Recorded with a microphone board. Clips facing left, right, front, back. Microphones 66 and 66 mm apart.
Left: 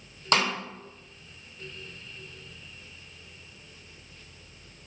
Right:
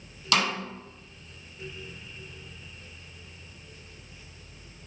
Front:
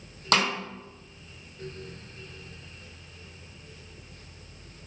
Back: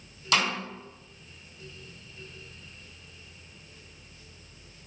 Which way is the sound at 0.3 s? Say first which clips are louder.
Left 1 dB, front 2 dB; 35° left.